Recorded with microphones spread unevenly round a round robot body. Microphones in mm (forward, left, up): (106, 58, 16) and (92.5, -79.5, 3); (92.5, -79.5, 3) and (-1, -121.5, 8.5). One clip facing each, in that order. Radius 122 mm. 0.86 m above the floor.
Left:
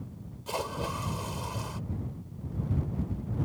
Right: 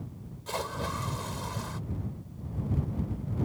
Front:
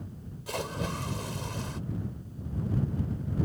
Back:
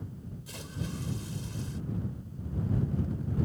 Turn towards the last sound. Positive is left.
turn(degrees=10)